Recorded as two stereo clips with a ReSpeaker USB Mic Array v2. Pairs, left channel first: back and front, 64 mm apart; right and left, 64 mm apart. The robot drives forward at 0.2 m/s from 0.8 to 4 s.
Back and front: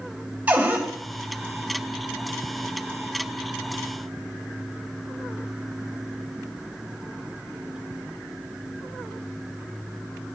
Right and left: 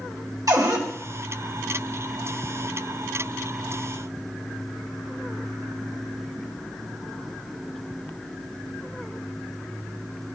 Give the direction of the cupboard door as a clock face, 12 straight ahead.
10 o'clock.